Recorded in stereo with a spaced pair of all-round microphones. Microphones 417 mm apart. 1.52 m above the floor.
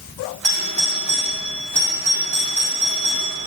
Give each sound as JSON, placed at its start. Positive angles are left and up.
{"t": 0.4, "sound": "a doorbell", "side_deg": -90, "distance_m": 1.7}